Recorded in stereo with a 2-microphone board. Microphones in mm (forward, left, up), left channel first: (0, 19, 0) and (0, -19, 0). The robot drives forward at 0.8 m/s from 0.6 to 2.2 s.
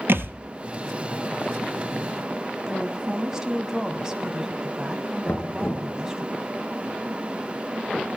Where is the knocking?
55° left (ahead or behind), 2.5 m.